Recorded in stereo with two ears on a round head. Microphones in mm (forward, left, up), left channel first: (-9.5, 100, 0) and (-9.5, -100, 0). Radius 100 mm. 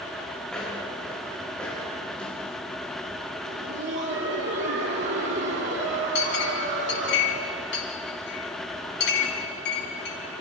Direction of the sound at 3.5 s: 55° right (ahead or behind).